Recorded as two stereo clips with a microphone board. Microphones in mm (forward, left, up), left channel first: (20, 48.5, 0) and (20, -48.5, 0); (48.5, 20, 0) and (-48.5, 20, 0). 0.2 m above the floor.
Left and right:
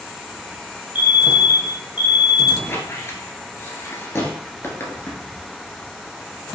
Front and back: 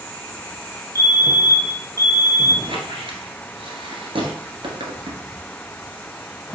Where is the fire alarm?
155° right, 3 m.